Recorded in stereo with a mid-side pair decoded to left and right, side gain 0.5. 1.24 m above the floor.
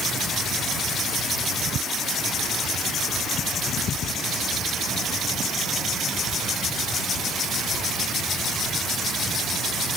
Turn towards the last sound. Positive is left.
No sound to turn to.